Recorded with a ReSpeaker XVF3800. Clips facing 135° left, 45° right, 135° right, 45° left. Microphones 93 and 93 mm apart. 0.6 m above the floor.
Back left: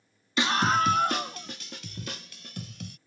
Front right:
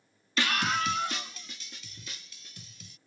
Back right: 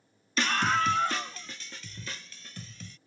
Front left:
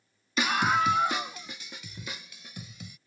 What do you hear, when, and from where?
0.4 s a scream: 105° left; by 3.0 s 120° left